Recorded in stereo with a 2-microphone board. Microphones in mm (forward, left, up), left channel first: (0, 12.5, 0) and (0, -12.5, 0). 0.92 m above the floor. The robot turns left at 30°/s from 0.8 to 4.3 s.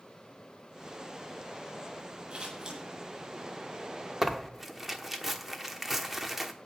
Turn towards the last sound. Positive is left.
turn(degrees=-5)  # may be behind; listen again after turning